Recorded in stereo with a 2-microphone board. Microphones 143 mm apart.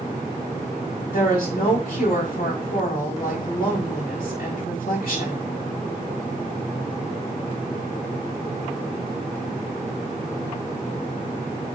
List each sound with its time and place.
1.1 s a woman speaking: 85° left, 6 m